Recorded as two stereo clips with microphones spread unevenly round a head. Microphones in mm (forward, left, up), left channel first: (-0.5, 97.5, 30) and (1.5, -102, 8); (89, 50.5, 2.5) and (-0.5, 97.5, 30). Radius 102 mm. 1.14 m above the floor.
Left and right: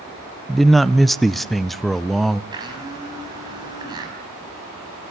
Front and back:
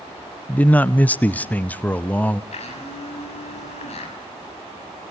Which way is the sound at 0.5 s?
10° right.